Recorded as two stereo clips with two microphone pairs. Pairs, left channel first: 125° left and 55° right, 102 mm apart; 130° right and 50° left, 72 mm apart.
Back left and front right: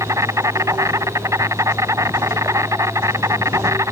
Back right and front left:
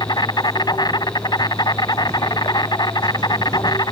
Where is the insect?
115° right.